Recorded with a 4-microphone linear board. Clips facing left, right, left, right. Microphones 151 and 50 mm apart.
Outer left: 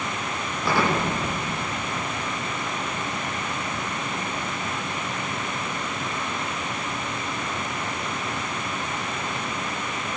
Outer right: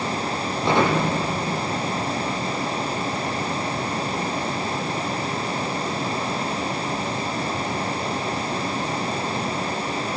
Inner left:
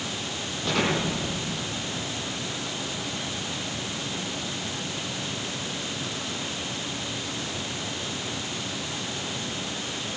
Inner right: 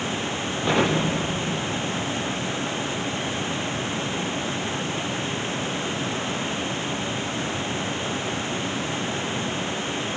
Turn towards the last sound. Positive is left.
turn(degrees=-25)  # may be behind; listen again after turning